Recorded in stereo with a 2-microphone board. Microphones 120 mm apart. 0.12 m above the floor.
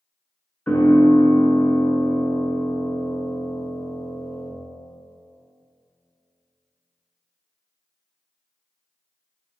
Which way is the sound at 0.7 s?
15° left (ahead or behind).